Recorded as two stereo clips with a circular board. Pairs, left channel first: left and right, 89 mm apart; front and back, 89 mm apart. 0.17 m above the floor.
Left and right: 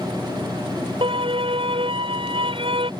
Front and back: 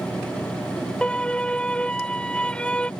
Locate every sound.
1.0 s a violin: 80° right